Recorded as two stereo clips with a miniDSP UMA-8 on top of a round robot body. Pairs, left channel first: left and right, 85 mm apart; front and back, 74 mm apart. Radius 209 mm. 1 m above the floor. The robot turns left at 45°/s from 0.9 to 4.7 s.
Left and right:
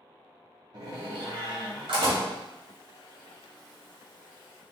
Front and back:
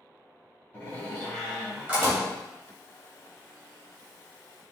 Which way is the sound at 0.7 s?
70° right.